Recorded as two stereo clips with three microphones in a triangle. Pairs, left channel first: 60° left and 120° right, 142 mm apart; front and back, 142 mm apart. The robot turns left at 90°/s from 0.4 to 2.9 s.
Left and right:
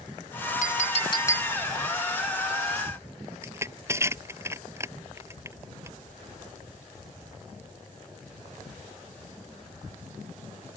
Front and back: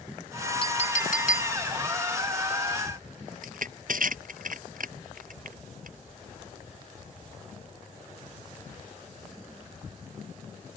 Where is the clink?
50° left; by 1.6 s 35° right.